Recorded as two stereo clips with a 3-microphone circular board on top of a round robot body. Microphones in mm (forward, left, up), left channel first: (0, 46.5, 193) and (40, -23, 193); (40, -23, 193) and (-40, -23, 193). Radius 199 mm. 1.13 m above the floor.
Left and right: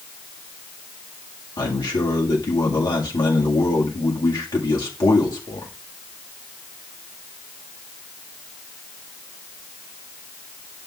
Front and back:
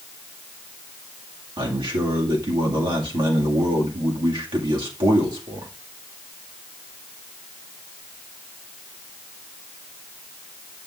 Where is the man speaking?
155° left, 2 m.